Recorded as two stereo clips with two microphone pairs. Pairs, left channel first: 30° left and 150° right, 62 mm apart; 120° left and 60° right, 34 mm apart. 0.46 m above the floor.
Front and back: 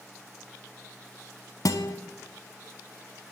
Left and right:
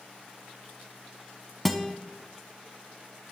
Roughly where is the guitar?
Ahead left.